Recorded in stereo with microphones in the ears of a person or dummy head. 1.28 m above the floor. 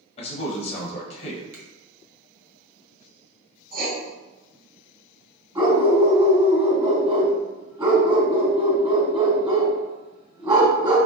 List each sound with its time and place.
0.2 s a man speaking: 35° left (ahead or behind), 0.9 m
1.5 s a finger snap: 50° right (ahead or behind), 1.0 m
3.7 s writing: 50° right (ahead or behind), 1.5 m
5.5 s a dog barking: 25° right (ahead or behind), 1.9 m